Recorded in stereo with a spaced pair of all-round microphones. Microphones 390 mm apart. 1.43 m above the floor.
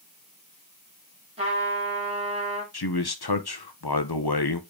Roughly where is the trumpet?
Centre.